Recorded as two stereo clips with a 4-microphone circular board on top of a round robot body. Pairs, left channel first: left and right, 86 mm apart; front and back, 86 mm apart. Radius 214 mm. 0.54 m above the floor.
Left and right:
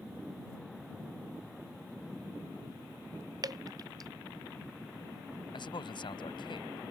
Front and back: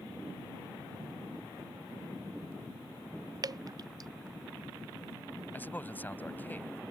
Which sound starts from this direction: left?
A man speaking, at 5.5 s.